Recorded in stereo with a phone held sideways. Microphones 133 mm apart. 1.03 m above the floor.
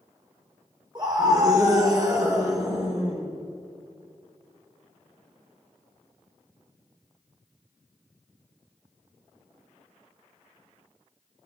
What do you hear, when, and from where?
0.9 s a scream: 30° right (ahead or behind), 3 m; by 3.3 s 20° right (ahead or behind), 4.5 m